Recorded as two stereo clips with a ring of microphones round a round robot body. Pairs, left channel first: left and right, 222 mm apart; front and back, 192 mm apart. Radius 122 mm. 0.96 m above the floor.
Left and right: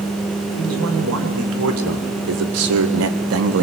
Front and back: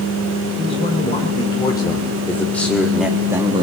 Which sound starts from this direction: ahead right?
A man speaking, at 0.6 s.